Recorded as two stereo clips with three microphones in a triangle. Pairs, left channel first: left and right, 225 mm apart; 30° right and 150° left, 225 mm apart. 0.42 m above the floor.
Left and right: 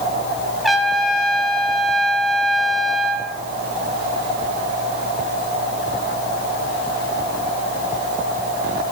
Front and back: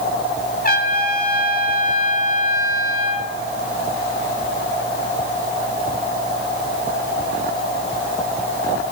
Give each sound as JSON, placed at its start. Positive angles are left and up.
{"t": 0.6, "sound": "a trumpet", "azimuth_deg": 0, "distance_m": 1.5}